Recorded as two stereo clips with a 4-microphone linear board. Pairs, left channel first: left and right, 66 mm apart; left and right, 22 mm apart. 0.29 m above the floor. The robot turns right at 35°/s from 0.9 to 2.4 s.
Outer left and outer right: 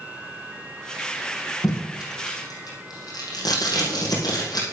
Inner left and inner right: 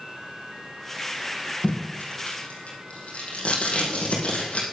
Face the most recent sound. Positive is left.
turn(degrees=85)